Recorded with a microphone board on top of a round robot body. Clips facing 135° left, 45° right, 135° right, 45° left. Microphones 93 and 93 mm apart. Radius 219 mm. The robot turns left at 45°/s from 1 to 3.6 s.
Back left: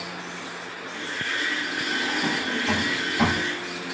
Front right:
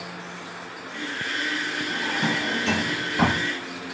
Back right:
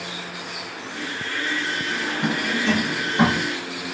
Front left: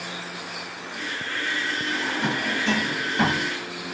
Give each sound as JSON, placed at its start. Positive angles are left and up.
{"t": 1.9, "sound": "a drawer", "azimuth_deg": -10, "distance_m": 2.5}